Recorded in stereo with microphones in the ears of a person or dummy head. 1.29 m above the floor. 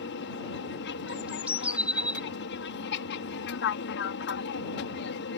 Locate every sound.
0.0 s an aircraft: 55° left (ahead or behind)
1.1 s a bird: 5° right (ahead or behind)